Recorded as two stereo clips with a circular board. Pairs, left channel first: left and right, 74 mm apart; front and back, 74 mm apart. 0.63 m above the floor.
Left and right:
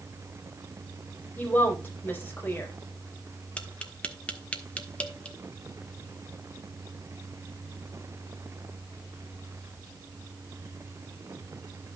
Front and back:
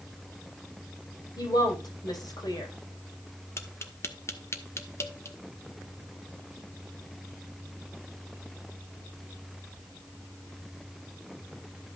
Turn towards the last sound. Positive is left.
turn(degrees=25)